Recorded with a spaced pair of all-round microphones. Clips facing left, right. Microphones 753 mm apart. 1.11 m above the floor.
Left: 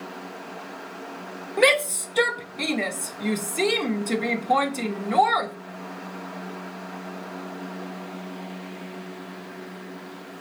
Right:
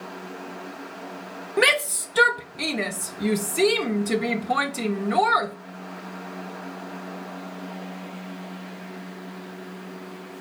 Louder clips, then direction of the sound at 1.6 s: Left 3 dB; 50° right (ahead or behind).